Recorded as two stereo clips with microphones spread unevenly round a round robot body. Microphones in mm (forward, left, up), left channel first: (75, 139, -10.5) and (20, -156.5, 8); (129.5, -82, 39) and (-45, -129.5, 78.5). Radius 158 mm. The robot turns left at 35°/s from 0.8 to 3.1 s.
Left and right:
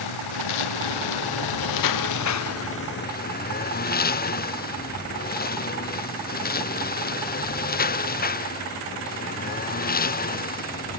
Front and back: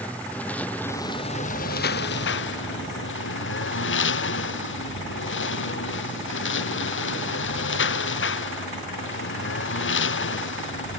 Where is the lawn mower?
100° left; by 11.0 s 20° left.